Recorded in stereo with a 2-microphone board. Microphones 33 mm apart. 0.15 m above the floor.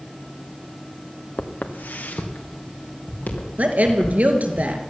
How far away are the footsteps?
About 1.5 m.